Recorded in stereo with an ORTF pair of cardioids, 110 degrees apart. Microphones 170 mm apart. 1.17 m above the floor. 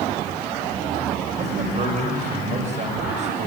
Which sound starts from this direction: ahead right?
A man speaking, at 1.4 s.